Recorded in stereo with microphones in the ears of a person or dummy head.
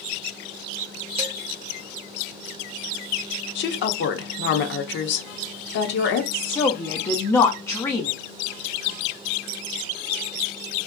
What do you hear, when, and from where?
1.2 s dishes clattering: 30° right (ahead or behind), 1.0 m
3.5 s a woman speaking: 50° left (ahead or behind), 0.6 m
6.3 s a woman speaking: 10° left (ahead or behind), 0.5 m